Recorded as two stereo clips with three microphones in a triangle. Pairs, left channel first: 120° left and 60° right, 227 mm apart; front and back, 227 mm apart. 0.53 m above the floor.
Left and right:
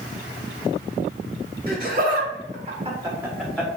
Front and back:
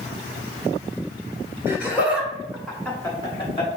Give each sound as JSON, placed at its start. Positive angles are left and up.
{"t": 1.7, "sound": "laughter", "azimuth_deg": -100, "distance_m": 1.9}